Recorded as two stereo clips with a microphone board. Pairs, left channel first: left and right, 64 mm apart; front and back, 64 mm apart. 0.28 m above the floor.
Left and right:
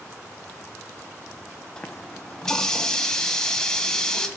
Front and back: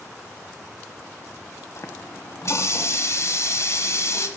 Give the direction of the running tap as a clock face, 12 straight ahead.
12 o'clock.